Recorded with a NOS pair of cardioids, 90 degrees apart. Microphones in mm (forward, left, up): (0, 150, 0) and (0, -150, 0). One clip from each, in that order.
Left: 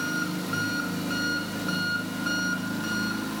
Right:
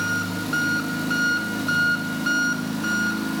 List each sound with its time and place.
0.0 s an engine running: 25° right, 1.3 m